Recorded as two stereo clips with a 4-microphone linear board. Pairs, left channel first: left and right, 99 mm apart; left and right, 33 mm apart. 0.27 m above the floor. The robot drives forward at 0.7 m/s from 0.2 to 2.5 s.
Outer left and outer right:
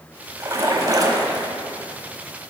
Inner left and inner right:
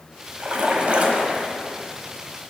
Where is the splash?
35° right (ahead or behind), 1.1 m.